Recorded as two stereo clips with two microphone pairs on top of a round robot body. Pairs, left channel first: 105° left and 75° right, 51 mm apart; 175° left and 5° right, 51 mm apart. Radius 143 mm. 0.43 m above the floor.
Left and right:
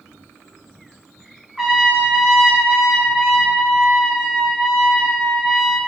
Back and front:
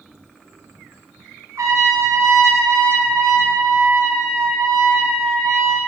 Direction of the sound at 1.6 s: 10° left.